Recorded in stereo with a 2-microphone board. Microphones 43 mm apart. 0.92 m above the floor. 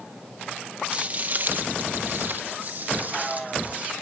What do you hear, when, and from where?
0.9 s footsteps: 30° right (ahead or behind), 1.3 m; by 3.9 s 35° right (ahead or behind), 3 m